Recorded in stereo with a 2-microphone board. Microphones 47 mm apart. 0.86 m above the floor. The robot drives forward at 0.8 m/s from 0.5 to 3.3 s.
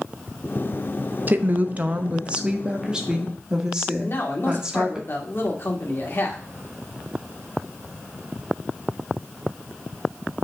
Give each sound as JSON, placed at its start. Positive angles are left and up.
{"t": 1.3, "sound": "a woman speaking", "side_deg": -35, "distance_m": 0.7}
{"t": 4.0, "sound": "a man speaking", "side_deg": 50, "distance_m": 2.0}